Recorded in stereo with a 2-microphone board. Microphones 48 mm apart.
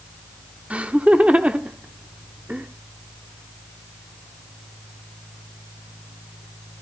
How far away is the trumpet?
No trumpet in this recording.